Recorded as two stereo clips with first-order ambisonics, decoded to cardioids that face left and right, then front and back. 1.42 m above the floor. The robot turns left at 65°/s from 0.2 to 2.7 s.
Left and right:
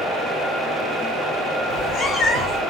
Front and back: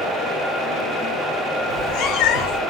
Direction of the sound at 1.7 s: 40° left.